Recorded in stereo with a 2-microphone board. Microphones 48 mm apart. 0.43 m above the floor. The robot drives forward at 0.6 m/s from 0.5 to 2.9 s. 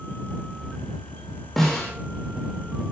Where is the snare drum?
5° left (ahead or behind), 9 m.